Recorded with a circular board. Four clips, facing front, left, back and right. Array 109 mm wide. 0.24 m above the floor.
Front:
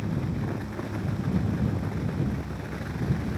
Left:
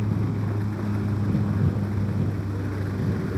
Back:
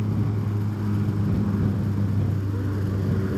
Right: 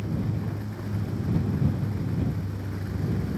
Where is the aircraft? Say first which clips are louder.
Left 3 dB, back 3 dB; 135° left; by 3.4 s 150° left.